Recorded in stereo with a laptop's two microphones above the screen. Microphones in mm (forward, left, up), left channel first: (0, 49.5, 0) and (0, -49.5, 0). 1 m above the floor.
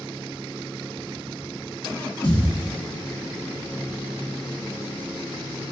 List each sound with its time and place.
2.2 s a thud: 40° left (ahead or behind), 1.7 m